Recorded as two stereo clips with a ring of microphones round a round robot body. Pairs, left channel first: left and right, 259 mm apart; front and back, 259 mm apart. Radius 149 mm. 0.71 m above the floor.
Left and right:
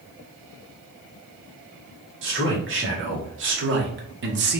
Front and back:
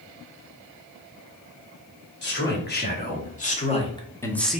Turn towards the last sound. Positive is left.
turn(degrees=-95)